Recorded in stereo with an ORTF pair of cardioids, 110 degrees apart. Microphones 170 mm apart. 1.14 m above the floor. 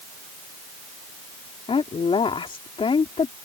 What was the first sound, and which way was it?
A woman speaking, 30° left.